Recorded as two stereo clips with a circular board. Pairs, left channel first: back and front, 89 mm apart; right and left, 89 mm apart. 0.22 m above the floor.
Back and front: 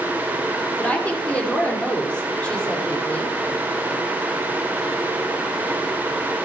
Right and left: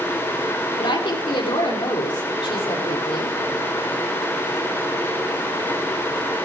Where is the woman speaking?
105° right, 7 m.